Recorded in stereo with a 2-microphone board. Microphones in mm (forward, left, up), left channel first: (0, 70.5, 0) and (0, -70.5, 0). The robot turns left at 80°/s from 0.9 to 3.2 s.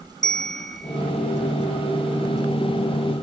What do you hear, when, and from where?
0.2 s a bell: 5° left (ahead or behind), 0.7 m; by 1.0 s centre (ahead or behind), 0.7 m